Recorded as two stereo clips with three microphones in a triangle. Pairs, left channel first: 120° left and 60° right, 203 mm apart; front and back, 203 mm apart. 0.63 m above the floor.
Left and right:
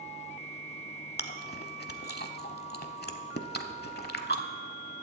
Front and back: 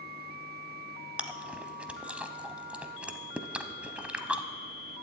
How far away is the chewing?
About 0.8 m.